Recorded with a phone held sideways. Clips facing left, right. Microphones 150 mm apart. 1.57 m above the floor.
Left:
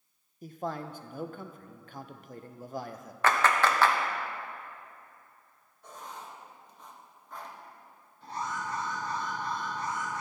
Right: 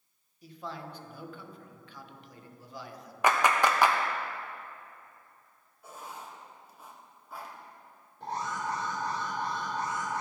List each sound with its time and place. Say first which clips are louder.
0.4 s a man speaking: left 6 dB; 50° left (ahead or behind), 0.6 m
3.2 s a clap: even; 15° right (ahead or behind), 0.7 m
5.8 s writing: even; 10° right (ahead or behind), 1.0 m
8.2 s an alarm: right 2 dB; 85° right, 3 m